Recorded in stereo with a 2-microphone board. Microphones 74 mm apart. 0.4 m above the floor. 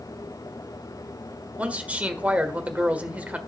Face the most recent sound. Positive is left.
turn(degrees=-20)  # may be behind; listen again after turning